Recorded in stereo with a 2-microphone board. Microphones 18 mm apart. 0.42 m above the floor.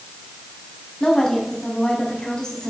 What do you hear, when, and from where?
1.0 s a woman speaking: 35° left (ahead or behind), 3.5 m